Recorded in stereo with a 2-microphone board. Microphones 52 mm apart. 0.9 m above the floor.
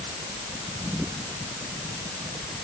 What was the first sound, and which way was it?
Only background noise.